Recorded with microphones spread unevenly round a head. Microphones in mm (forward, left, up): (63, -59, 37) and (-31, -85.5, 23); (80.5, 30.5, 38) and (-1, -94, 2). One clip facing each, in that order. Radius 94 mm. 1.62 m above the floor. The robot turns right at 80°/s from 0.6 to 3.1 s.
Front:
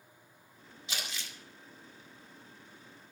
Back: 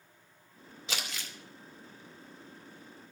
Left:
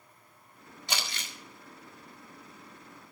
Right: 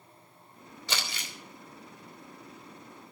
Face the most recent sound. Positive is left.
turn(degrees=-60)